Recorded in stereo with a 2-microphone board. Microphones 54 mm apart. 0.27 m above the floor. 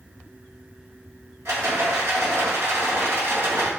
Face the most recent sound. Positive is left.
turn(degrees=-55)  # may be behind; listen again after turning